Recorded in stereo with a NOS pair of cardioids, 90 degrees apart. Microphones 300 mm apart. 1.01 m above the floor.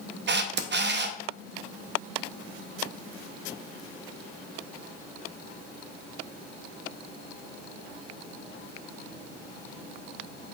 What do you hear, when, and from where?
0.3 s a camera shutter: 40° right, 0.7 m